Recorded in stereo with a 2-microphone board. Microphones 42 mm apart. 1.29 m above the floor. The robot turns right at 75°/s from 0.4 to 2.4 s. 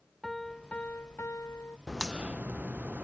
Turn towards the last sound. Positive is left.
turn(degrees=-40)  # may be behind; listen again after turning